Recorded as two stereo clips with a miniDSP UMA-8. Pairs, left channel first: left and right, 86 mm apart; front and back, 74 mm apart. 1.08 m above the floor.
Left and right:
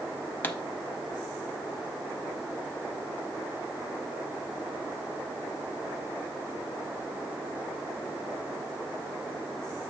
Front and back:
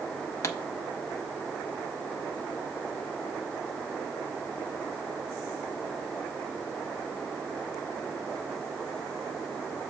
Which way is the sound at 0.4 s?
30° left.